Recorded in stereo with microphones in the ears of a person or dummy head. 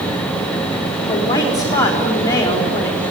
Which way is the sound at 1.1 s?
20° left (ahead or behind).